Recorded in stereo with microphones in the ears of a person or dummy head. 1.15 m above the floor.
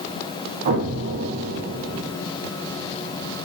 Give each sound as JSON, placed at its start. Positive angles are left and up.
{"t": 0.7, "sound": "an explosion", "side_deg": -55, "distance_m": 0.8}